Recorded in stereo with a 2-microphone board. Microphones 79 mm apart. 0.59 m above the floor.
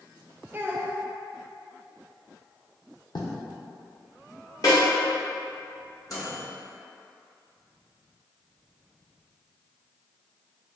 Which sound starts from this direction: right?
A child speaking, at 0.5 s.